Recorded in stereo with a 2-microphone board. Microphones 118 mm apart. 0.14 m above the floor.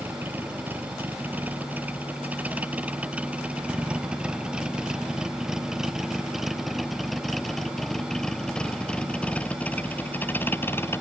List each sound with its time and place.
0.0 s a vehicle: 15° right (ahead or behind); by 11.0 s 20° left (ahead or behind)